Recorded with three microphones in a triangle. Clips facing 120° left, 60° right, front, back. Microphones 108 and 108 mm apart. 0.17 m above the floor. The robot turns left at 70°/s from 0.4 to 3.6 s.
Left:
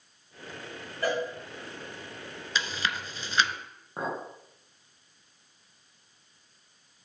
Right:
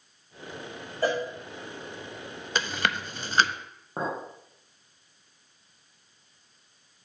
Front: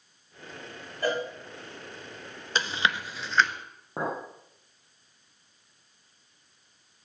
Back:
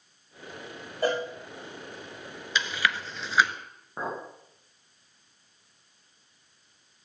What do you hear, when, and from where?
1.0 s a cowbell: 120° right, 3 m; by 1.2 s 135° right, 3 m
2.5 s chewing: 40° right, 0.5 m; by 3.5 s 110° right, 0.5 m
4.0 s a clink: straight ahead, 3 m